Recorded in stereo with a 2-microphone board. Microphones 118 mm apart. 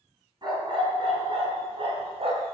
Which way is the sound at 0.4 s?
40° right (ahead or behind).